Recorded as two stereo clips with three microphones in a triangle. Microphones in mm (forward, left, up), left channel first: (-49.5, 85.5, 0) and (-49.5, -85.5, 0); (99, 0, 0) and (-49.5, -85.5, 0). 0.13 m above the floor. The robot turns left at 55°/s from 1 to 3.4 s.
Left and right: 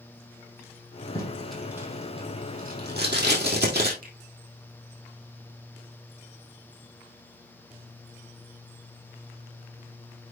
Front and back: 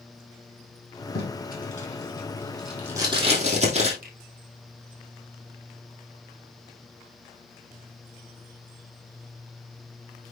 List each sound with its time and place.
1.1 s tape being pulled: 20° left, 4 m; by 3.9 s 100° right, 4 m
4.0 s a finger snap: 120° right, 4 m